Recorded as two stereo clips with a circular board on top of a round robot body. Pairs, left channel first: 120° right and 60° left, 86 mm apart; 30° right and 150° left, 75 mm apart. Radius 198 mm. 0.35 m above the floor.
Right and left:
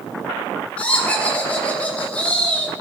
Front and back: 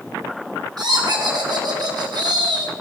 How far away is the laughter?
About 3 m.